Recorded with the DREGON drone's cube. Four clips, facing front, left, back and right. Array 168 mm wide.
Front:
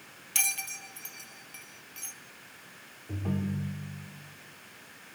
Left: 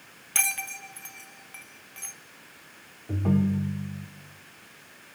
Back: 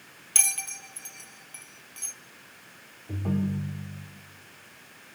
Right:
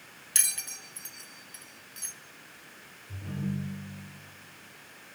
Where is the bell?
95° left, 1.1 m.